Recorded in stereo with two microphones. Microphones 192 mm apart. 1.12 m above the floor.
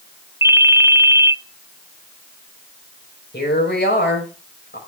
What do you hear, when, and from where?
0.4 s a ringtone: 10° right (ahead or behind), 0.7 m
3.3 s a woman speaking: 60° left (ahead or behind), 4.5 m